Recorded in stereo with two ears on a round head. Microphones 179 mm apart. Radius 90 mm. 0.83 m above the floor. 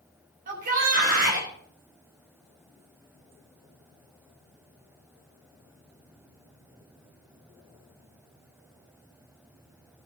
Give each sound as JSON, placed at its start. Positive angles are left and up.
{"t": 0.5, "sound": "a shout", "side_deg": -45, "distance_m": 5.5}